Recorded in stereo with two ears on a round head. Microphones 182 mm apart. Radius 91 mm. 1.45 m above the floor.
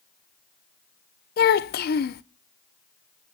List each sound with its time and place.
1.4 s a child speaking: 50° left (ahead or behind), 0.5 m